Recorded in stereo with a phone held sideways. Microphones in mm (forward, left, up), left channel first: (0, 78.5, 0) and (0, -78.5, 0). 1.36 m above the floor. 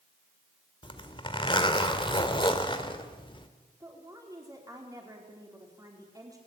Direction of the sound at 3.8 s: 20° right (ahead or behind).